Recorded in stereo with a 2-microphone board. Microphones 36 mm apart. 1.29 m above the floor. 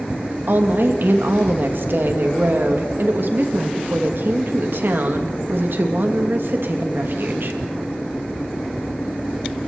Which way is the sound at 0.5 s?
65° right (ahead or behind).